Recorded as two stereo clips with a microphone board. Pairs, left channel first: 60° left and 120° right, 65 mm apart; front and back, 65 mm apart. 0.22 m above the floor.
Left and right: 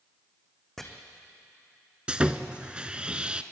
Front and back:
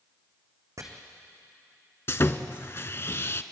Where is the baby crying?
I don't hear a baby crying.